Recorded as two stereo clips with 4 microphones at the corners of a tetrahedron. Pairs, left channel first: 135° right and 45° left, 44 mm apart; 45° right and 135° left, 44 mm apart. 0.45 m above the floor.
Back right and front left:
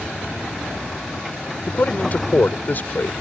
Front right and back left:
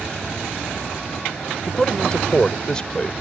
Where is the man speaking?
110° right.